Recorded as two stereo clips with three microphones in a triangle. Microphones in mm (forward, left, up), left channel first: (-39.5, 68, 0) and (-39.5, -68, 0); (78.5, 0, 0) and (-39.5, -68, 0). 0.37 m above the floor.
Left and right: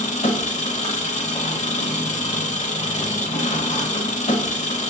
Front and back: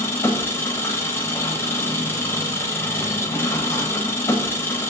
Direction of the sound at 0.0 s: 95° left.